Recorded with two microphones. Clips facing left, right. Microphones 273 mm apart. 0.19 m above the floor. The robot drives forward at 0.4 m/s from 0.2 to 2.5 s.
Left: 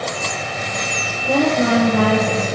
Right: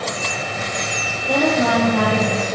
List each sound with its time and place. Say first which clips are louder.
1.3 s a woman speaking: left 2 dB; 25° left (ahead or behind), 5.5 m; by 2.6 s 30° left (ahead or behind), 5.5 m